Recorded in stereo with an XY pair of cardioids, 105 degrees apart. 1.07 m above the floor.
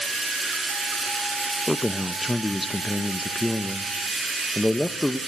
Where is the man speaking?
5° left, 0.7 m.